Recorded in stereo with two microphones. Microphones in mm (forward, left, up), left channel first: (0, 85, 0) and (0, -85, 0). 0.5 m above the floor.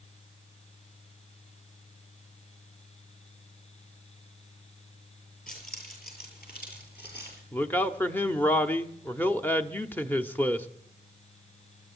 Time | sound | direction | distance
5.5 | keys jangling | 55° left (ahead or behind) | 8 m
7.5 | a man speaking | 10° left (ahead or behind) | 0.9 m